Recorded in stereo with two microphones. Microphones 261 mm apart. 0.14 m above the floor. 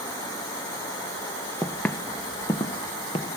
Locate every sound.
1.6 s footsteps: centre (ahead or behind), 1.3 m; by 3.3 s 25° left (ahead or behind), 2.5 m